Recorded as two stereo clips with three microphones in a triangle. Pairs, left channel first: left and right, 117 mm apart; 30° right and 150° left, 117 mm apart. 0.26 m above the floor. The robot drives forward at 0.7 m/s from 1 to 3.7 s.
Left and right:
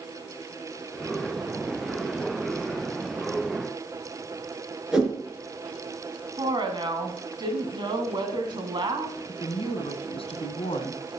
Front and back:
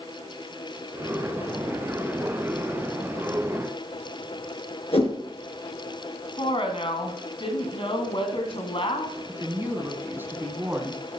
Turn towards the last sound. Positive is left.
turn(degrees=80)